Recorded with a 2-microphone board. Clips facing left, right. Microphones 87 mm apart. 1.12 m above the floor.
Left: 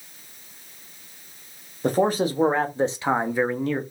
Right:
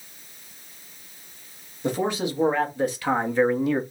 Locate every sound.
1.8 s a man speaking: 45° left (ahead or behind), 1.5 m; by 3.8 s 15° right (ahead or behind), 0.7 m